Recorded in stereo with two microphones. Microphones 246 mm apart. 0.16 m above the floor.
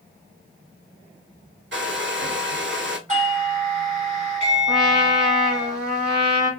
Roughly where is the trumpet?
Centre.